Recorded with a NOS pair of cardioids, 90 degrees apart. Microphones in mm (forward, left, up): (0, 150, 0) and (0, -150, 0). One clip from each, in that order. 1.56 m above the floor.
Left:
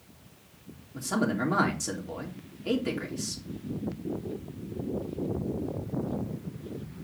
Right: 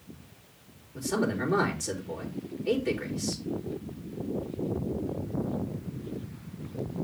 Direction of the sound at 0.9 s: 50° left.